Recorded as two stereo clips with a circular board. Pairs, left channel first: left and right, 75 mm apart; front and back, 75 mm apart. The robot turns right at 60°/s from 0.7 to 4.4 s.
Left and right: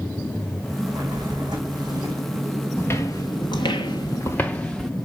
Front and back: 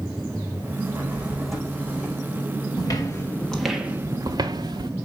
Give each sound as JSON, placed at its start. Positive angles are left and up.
{"t": 0.8, "sound": "a drawer", "azimuth_deg": -130, "distance_m": 5.0}
{"t": 2.8, "sound": "footsteps", "azimuth_deg": 25, "distance_m": 2.0}